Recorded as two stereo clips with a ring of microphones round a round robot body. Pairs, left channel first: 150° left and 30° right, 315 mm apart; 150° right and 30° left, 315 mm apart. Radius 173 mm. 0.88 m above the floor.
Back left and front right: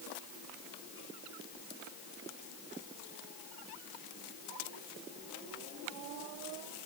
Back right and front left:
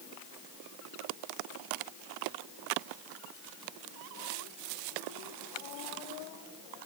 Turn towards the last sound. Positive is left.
No sound to turn to.